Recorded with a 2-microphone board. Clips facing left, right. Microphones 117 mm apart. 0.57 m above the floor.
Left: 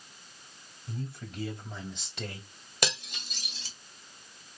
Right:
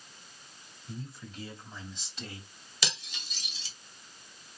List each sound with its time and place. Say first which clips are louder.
0.9 s a man speaking: left 3 dB; 70° left (ahead or behind), 2.5 m; by 2.5 s 65° left (ahead or behind), 1.9 m
2.8 s cutlery clinking: left 6 dB; 55° left (ahead or behind), 1.5 m